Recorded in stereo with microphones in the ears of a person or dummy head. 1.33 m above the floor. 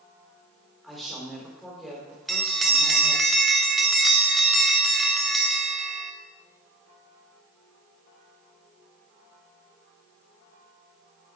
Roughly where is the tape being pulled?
No tape being pulled in this recording.